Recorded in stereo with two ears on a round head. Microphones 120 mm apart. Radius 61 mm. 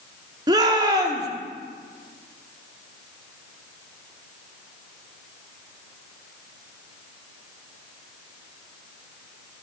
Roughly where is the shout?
Right.